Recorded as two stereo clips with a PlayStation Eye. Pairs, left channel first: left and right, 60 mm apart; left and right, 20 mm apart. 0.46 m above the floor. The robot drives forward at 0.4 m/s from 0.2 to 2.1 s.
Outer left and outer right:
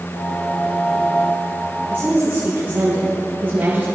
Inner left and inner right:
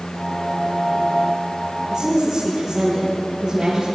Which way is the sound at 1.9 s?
35° right (ahead or behind).